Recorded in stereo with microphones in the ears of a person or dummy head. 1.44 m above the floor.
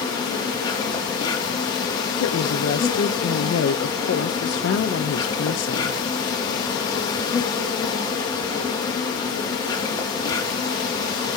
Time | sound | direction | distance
0.0 | an insect | 20° left (ahead or behind) | 2.5 m
2.2 | a woman speaking | 65° left (ahead or behind) | 0.8 m